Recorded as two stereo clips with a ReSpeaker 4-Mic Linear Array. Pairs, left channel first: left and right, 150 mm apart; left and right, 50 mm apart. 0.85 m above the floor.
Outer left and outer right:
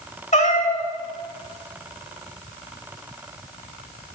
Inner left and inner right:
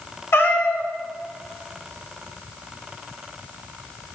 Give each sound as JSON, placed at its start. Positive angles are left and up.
{"t": 0.3, "sound": "a cat meowing", "side_deg": 50, "distance_m": 1.3}